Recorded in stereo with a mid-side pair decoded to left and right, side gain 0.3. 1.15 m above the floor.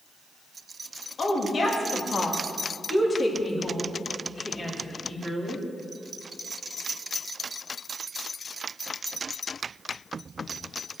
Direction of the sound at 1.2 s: 60° left.